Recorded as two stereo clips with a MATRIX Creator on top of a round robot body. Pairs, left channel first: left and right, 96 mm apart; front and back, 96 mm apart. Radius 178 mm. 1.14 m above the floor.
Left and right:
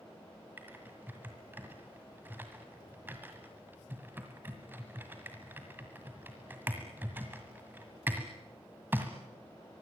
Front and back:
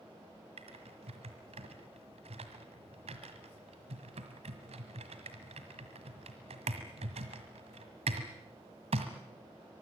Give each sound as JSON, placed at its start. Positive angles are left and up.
{"t": 0.6, "sound": "typing on a keyboard", "azimuth_deg": -160, "distance_m": 1.6}